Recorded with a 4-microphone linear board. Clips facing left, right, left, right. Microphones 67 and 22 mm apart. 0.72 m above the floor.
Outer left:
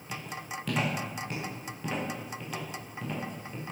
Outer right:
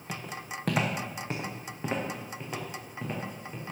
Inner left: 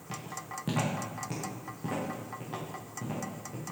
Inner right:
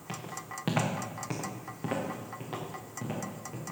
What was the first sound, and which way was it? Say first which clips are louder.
Footsteps: even, even; 50° right (ahead or behind).